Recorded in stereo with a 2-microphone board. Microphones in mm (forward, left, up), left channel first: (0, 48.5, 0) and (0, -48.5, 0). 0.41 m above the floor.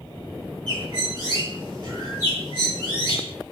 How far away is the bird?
About 9 m.